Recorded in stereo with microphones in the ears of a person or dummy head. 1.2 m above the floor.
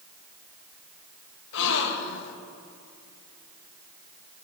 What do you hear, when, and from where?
1.5 s a gasp: 65° left (ahead or behind), 1.3 m